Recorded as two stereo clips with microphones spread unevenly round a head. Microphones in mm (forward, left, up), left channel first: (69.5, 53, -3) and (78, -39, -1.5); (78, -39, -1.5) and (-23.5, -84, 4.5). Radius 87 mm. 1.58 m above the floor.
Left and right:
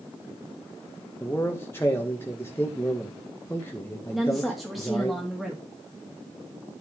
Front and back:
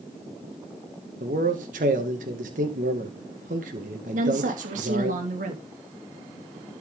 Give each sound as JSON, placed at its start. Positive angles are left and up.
{"t": 1.2, "sound": "a man speaking", "azimuth_deg": 175, "distance_m": 1.9}
{"t": 4.1, "sound": "a woman speaking", "azimuth_deg": -175, "distance_m": 2.5}